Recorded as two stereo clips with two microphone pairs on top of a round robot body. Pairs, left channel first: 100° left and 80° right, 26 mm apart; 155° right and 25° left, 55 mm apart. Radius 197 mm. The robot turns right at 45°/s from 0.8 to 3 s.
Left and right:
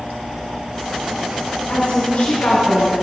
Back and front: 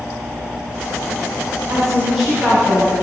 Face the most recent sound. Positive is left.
turn(degrees=110)